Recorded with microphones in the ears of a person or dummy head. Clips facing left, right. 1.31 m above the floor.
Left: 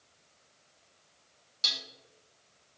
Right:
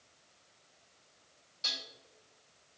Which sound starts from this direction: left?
Dishes clattering, at 1.6 s.